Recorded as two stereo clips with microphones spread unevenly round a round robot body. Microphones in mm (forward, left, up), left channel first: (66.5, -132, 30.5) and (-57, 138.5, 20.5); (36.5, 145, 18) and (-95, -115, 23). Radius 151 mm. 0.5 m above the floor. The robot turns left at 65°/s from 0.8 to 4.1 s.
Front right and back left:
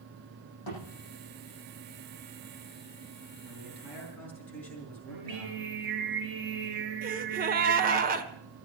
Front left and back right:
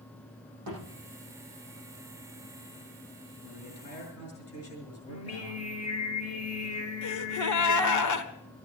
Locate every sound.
0.7 s a thud: 80° right, 9.5 m
3.4 s a man speaking: 65° left, 7 m; by 6.1 s 20° left, 7 m
5.1 s singing: 100° left, 3 m
7.0 s a gasp: 55° left, 1.3 m